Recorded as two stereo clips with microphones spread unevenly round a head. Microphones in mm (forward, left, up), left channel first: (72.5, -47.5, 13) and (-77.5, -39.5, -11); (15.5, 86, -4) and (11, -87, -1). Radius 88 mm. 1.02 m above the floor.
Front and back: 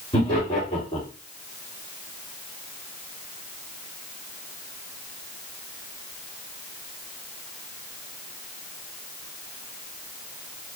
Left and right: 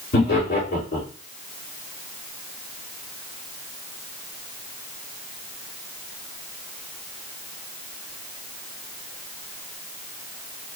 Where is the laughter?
60° left, 2.5 m.